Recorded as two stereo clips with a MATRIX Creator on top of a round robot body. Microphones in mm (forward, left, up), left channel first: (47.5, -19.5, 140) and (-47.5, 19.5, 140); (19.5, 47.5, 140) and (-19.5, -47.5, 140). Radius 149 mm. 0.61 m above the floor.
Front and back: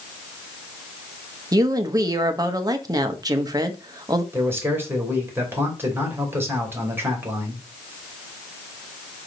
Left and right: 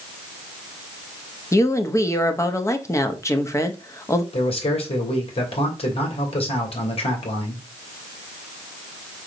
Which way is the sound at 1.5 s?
120° left.